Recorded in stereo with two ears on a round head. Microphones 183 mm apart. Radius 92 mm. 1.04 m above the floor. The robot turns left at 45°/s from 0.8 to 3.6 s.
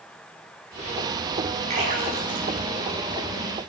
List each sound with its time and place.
1.7 s a splash: 35° right (ahead or behind), 6.5 m; by 3.6 s 60° right (ahead or behind), 6.5 m